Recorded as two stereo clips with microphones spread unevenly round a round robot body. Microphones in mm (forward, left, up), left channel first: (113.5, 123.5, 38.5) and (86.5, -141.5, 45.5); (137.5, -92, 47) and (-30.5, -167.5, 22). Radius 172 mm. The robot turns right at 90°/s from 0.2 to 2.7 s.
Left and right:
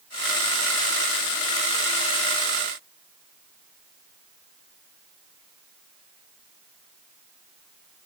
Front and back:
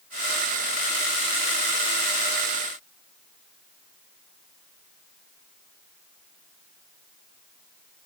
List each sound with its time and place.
Only background noise.